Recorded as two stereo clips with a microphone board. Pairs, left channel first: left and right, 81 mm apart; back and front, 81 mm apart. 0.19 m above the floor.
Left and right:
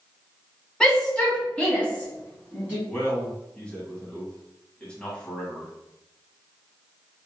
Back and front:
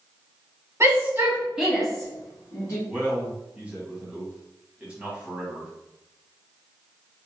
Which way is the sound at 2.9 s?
35° left.